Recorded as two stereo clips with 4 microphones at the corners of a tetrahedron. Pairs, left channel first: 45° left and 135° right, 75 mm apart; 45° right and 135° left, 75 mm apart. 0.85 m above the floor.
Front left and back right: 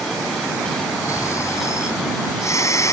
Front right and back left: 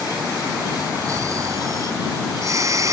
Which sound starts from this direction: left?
Snoring, at 1.1 s.